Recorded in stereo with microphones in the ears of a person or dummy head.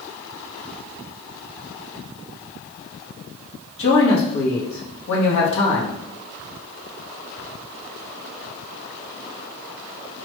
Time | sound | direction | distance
3.8 | a man speaking | 65° left (ahead or behind) | 1.0 m